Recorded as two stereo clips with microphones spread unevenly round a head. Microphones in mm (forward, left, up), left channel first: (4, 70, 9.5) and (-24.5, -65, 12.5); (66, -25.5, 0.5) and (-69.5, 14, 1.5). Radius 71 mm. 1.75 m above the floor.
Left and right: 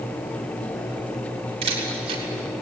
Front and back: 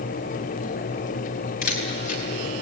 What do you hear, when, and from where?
1.6 s a camera shutter: 50° right, 5 m